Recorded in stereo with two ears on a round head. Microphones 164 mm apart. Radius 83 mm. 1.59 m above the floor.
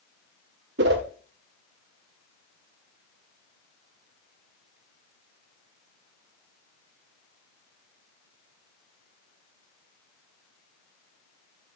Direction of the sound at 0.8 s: 60° right (ahead or behind).